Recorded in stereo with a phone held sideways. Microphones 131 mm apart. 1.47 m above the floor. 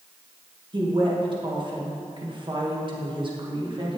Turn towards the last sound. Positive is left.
turn(degrees=-40)  # may be behind; listen again after turning